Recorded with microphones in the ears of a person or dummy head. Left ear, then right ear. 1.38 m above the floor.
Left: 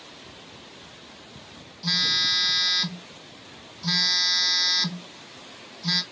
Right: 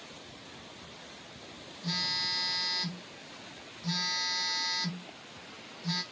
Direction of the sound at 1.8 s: 65° left (ahead or behind).